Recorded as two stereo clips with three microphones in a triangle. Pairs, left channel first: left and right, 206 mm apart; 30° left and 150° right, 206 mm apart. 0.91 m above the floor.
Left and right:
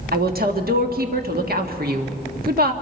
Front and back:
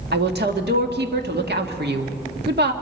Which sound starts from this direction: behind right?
A woman speaking, at 0.1 s.